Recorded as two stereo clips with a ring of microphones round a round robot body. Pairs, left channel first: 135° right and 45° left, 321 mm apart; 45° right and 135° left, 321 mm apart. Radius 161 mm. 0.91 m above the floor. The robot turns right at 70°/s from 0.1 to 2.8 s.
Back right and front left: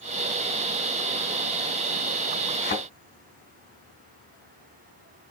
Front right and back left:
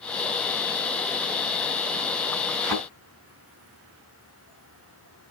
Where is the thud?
160° left, 4.5 m; by 2.8 s 170° left, 4.5 m.